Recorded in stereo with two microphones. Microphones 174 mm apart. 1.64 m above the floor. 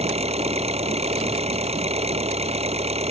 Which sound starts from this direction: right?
An engine running, at 0.0 s.